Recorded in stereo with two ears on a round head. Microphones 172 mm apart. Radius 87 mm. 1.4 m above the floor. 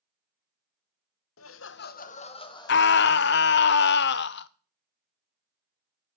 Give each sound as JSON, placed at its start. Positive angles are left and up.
{"t": 1.4, "sound": "laughter", "side_deg": 80, "distance_m": 0.8}
{"t": 2.7, "sound": "a scream", "side_deg": 60, "distance_m": 0.7}